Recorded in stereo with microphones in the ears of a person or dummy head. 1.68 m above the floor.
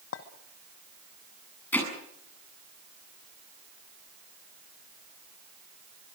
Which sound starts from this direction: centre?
Hammering, at 1.7 s.